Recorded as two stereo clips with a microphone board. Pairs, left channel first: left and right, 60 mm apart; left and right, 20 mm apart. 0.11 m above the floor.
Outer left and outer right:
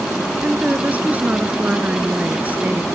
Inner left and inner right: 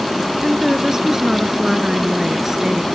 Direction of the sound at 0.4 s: 25° right (ahead or behind).